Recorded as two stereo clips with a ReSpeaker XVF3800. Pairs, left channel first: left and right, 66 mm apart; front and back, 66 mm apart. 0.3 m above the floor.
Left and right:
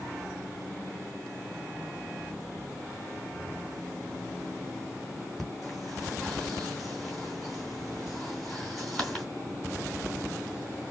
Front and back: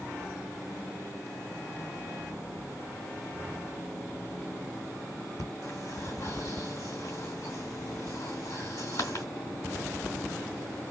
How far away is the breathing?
About 3 m.